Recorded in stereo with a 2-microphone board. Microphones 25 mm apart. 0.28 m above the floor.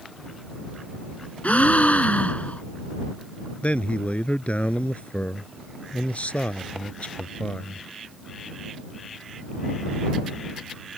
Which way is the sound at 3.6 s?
60° left (ahead or behind).